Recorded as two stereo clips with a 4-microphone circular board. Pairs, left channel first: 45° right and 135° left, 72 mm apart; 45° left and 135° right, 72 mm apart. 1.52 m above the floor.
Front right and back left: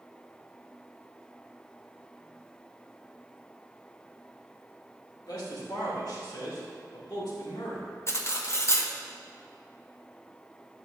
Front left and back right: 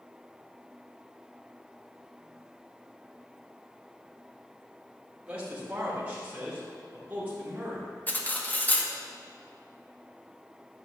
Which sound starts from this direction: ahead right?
A man speaking, at 5.3 s.